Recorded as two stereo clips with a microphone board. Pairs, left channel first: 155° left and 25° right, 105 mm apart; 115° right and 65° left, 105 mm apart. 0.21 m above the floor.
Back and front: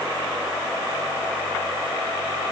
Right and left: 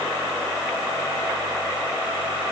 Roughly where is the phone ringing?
I don't hear a phone ringing.